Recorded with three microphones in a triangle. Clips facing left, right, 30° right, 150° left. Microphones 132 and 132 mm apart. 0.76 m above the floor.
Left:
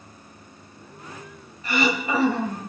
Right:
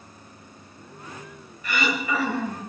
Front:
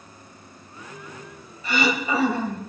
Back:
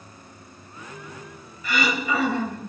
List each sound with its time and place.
1.6 s throat clearing: 30° left, 2 m